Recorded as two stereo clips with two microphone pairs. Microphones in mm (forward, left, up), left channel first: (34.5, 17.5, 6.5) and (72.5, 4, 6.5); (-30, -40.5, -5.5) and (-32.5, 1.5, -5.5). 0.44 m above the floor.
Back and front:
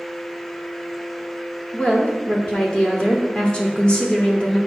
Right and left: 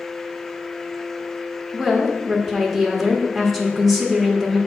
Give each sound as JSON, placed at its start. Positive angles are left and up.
{"t": 1.7, "sound": "a woman speaking", "azimuth_deg": 170, "distance_m": 1.1}